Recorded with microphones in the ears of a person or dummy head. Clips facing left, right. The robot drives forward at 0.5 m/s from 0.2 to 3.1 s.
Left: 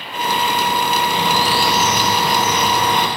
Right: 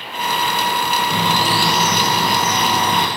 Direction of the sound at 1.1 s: 55° right (ahead or behind).